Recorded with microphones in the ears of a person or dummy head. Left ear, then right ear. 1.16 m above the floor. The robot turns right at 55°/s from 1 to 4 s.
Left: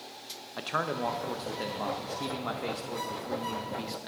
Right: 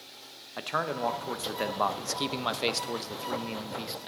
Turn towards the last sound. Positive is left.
turn(degrees=-5)